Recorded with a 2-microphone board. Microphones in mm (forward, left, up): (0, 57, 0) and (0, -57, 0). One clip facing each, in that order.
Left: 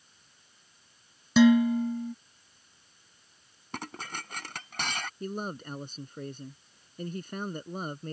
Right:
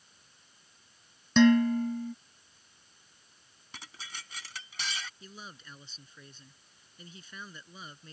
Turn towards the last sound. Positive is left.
turn(degrees=50)  # may be behind; listen again after turning